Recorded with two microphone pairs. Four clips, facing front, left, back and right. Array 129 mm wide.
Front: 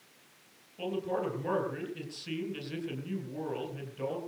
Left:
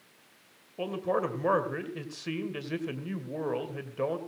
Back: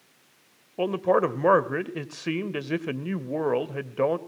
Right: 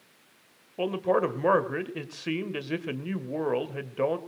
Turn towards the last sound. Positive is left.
turn(degrees=-165)